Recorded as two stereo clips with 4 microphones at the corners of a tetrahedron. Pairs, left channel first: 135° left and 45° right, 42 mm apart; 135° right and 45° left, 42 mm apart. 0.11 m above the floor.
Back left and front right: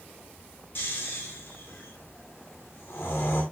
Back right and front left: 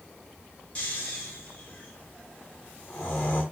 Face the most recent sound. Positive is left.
turn(degrees=170)